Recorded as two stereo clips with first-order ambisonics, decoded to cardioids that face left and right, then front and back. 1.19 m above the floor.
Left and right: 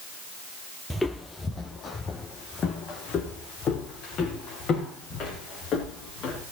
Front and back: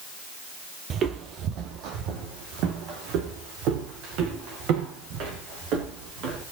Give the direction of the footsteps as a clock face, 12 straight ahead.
6 o'clock.